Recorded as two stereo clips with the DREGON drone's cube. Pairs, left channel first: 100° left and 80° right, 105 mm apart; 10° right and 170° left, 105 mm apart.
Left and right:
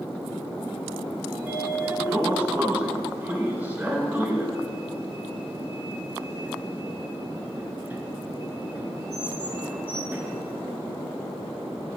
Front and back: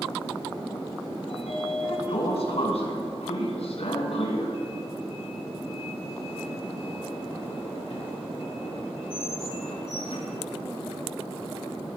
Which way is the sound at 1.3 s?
10° right.